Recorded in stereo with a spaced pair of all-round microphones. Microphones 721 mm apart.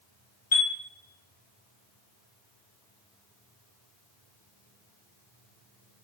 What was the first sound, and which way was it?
A chime, 45° left (ahead or behind).